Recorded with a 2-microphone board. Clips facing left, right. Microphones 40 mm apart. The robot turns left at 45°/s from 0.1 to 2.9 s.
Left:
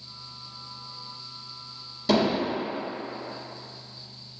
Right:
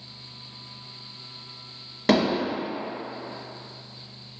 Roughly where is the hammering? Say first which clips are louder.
Right 1 dB; right.